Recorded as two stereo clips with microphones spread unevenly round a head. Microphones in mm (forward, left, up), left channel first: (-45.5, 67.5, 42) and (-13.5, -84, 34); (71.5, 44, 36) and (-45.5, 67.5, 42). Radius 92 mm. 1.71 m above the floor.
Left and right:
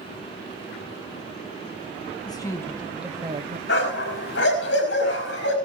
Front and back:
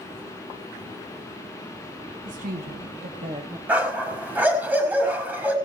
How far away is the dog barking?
About 5 m.